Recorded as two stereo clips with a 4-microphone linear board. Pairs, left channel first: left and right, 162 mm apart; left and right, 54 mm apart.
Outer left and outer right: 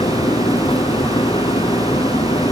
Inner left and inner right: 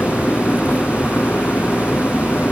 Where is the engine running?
30° left (ahead or behind).